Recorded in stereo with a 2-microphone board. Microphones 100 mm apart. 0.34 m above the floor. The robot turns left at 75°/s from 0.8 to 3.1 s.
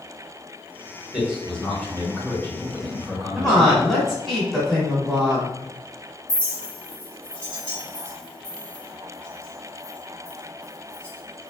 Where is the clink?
10° left (ahead or behind), 1.8 m.